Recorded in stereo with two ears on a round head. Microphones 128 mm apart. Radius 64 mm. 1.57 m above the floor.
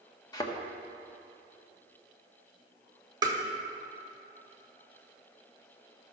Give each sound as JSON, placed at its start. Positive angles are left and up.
{"t": 0.3, "sound": "a thud", "side_deg": 25, "distance_m": 1.2}
{"t": 3.2, "sound": "tapping", "side_deg": -30, "distance_m": 1.6}